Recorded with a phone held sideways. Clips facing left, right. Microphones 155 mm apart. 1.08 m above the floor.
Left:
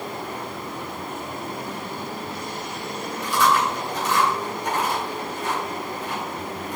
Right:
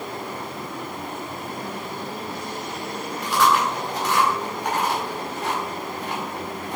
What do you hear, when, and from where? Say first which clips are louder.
3.2 s chewing: right 1 dB; 80° right, 5.5 m